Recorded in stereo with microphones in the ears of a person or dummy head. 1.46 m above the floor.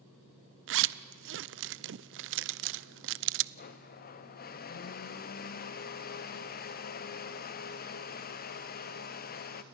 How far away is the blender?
About 0.8 m.